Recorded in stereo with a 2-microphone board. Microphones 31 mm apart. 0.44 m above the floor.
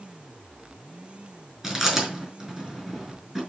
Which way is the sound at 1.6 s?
10° right (ahead or behind).